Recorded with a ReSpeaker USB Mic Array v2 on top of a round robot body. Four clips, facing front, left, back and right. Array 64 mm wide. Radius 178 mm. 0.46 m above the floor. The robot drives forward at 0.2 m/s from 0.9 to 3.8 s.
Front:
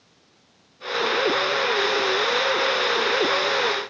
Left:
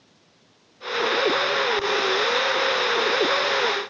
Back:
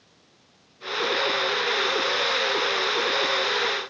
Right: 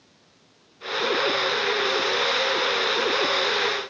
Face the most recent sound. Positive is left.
No sound to turn to.